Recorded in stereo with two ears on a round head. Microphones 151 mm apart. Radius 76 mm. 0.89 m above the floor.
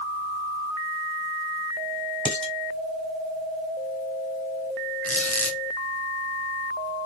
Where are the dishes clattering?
5° left (ahead or behind), 2.5 m.